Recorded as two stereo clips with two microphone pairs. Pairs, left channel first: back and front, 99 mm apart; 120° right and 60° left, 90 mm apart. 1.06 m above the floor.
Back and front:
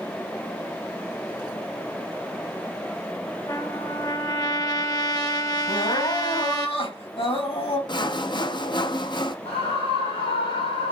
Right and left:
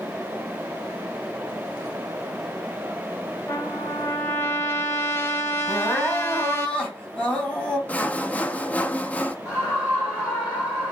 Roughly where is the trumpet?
Behind.